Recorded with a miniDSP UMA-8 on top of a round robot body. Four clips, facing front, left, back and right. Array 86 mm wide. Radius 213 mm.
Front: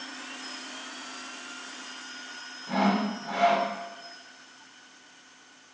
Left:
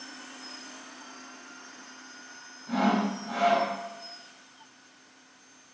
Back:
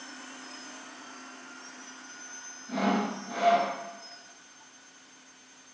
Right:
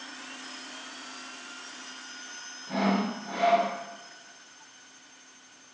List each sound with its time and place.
2.7 s sawing: 15° right, 7.5 m